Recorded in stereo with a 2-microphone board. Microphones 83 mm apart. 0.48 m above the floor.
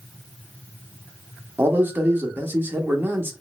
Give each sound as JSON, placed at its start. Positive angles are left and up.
{"t": 1.6, "sound": "a man speaking", "side_deg": -25, "distance_m": 0.8}